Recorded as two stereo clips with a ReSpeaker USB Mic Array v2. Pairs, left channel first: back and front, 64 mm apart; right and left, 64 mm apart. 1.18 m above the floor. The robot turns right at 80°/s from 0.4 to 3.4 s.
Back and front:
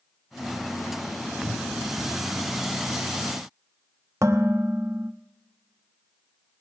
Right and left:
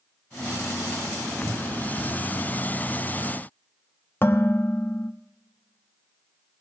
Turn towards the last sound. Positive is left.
turn(degrees=-35)